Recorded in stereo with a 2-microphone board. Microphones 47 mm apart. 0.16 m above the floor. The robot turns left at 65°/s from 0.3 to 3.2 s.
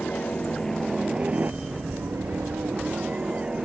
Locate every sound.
0.0 s a helicopter: 35° left; by 3.6 s 155° right